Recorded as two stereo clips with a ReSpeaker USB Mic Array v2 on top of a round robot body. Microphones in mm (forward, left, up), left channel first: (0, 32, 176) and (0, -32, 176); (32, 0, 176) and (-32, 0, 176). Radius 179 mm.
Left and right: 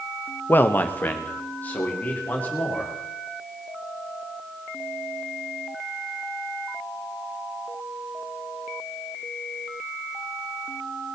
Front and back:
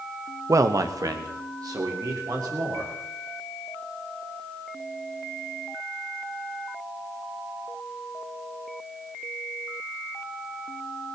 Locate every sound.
0.5 s a man speaking: 150° left, 0.9 m; by 2.9 s 155° left, 4 m